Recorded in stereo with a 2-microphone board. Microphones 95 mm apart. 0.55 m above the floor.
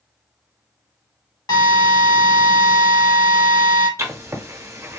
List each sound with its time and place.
1.5 s a drill: 45° left (ahead or behind), 1.8 m
4.0 s writing: 30° right (ahead or behind), 0.8 m